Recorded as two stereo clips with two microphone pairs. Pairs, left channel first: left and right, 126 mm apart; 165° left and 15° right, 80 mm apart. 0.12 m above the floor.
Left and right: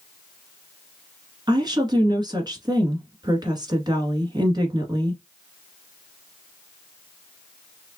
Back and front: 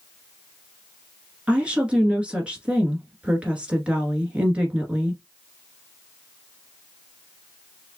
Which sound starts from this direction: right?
A woman speaking, at 1.5 s.